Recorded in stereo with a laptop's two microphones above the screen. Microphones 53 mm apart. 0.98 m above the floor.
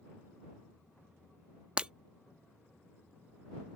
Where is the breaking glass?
20° right (ahead or behind).